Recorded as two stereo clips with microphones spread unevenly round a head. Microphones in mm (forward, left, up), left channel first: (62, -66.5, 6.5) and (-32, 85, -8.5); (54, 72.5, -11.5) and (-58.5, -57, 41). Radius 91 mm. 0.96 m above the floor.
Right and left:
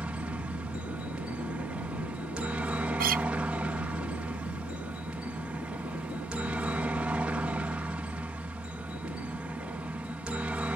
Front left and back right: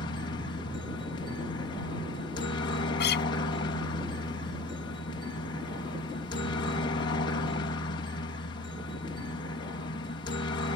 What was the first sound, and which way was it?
A helicopter, 45° left.